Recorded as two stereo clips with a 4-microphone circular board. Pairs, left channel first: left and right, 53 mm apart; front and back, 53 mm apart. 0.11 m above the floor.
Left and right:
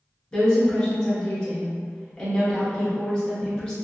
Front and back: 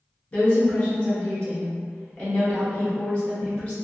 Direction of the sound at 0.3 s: 35° left.